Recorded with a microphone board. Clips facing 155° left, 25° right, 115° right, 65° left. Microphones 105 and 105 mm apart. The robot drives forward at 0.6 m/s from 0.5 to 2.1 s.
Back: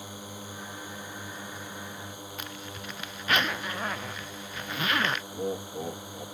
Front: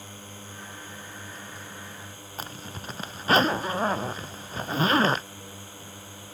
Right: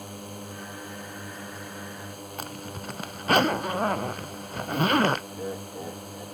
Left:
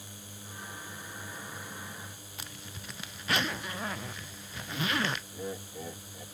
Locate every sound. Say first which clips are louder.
0.0 s a drone: back 3 dB, right 11 dB; 130° right
2.4 s a zipper: front 6 dB, right 10 dB; 75° right
5.3 s laughter: back 12 dB, right 5 dB; 175° left